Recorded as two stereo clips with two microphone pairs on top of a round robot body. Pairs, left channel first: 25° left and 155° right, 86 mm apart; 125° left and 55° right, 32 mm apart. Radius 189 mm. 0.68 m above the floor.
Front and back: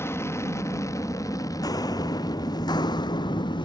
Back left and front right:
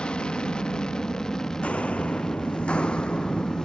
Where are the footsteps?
70° left; by 3.7 s 55° left.